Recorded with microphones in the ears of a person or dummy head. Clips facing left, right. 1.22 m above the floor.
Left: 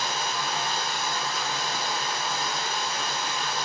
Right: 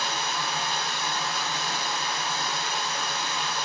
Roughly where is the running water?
Right.